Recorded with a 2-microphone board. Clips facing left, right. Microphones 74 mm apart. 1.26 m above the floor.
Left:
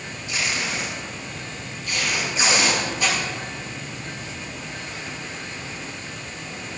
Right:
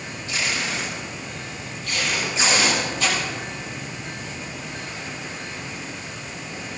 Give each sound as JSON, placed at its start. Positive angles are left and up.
{"t": 0.3, "sound": "tape being pulled", "side_deg": 15, "distance_m": 7.0}